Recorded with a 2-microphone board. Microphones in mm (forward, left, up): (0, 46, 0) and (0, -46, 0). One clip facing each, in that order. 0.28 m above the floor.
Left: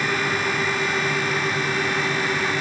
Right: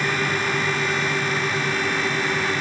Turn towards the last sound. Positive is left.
No sound to turn to.